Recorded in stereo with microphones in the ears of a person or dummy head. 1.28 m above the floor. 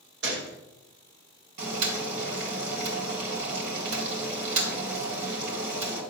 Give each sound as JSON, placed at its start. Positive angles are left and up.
{"t": 0.2, "sound": "a gunshot", "side_deg": -75, "distance_m": 1.7}
{"t": 1.6, "sound": "boiling", "side_deg": -65, "distance_m": 4.0}